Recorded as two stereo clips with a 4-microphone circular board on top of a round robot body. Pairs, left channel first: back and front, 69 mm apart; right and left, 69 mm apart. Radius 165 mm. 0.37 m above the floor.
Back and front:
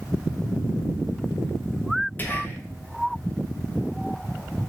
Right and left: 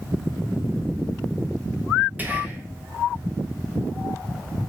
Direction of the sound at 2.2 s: 135° left.